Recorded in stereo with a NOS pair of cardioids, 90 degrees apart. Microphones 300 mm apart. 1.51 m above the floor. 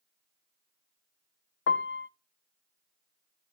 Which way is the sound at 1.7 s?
40° left.